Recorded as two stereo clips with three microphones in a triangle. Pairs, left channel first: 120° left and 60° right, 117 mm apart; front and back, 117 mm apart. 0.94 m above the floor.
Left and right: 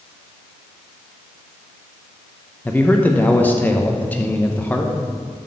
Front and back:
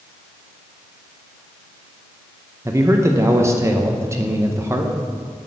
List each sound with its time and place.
2.6 s a man speaking: 170° left, 0.6 m